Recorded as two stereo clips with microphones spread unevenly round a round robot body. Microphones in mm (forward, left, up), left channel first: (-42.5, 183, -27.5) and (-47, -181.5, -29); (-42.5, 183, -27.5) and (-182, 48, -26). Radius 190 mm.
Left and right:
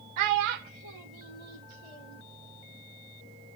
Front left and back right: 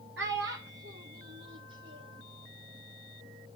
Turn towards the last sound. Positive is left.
turn(degrees=-85)